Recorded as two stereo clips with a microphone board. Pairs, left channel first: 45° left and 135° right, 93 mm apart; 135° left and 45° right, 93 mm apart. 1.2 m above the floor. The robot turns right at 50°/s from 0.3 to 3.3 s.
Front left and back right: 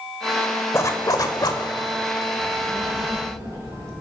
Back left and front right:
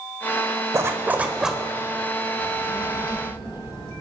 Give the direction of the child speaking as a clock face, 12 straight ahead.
8 o'clock.